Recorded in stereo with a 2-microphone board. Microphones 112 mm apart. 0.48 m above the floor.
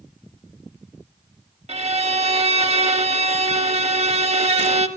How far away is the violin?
About 0.6 m.